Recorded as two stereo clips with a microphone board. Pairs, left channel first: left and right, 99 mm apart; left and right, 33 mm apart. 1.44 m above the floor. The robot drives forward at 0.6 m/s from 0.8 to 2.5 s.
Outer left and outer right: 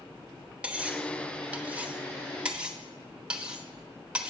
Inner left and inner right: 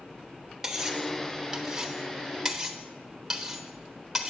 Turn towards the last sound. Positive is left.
turn(degrees=-10)  # may be behind; listen again after turning